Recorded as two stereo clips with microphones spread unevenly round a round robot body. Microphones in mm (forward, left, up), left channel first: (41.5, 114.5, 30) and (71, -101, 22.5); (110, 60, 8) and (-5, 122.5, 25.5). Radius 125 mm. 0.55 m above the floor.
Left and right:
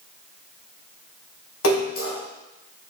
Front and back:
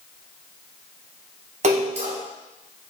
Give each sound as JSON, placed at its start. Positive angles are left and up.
{"t": 1.6, "sound": "a splash", "azimuth_deg": 130, "distance_m": 4.5}